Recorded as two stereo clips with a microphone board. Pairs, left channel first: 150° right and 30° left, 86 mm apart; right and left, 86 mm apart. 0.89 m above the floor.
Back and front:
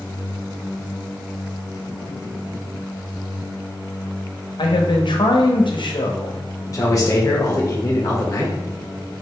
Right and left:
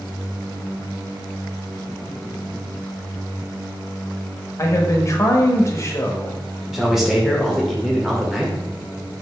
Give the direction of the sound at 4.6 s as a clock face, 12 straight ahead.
5 o'clock.